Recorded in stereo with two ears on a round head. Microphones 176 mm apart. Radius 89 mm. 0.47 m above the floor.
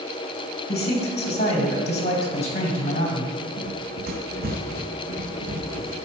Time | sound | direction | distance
0.7 | a man speaking | 35° left (ahead or behind) | 2.5 m
3.6 | running footsteps | 70° right (ahead or behind) | 1.2 m